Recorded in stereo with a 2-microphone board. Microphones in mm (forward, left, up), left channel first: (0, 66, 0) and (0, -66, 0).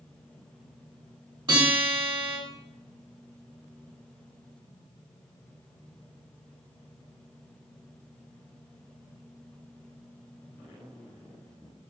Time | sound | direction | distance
1.5 | a guitar | 40° right (ahead or behind) | 1.5 m